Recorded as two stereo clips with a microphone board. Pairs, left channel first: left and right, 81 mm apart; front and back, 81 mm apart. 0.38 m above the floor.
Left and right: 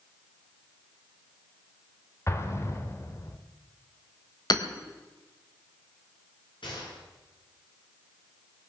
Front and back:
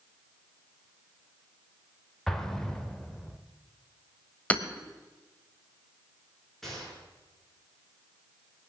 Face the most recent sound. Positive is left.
turn(degrees=85)